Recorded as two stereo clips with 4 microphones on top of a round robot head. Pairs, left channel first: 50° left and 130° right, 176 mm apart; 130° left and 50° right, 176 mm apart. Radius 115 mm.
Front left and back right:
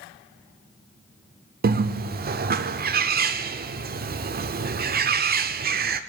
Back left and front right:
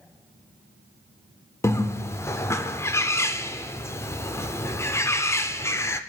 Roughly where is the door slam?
I don't hear a door slam.